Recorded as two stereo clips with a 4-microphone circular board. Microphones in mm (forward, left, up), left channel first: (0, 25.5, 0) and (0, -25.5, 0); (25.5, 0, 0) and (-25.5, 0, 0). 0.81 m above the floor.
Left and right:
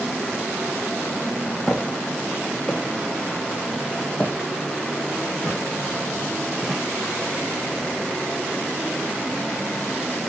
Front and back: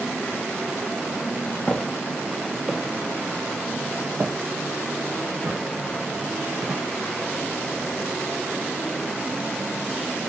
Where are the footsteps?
40° left, 0.9 m; by 6.8 s 175° left, 2.5 m.